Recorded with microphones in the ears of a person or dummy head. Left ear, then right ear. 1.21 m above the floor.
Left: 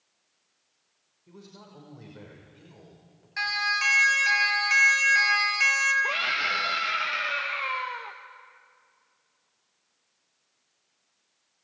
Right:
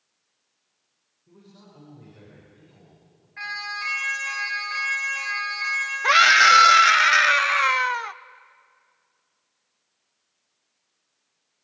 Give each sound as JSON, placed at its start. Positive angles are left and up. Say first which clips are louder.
{"t": 1.3, "sound": "a man speaking", "louder": "left 3 dB", "side_deg": 85, "distance_m": 5.5}
{"t": 3.4, "sound": "a siren", "louder": "left 5 dB", "side_deg": 85, "distance_m": 7.5}
{"t": 6.0, "sound": "a scream", "louder": "right 12 dB", "side_deg": -60, "distance_m": 0.8}